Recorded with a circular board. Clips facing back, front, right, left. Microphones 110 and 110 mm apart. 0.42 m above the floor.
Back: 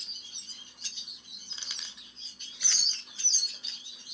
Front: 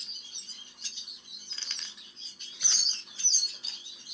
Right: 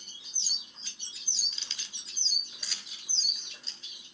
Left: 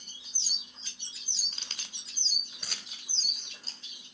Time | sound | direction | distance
1.5 | keys jangling | 115° left | 1.0 m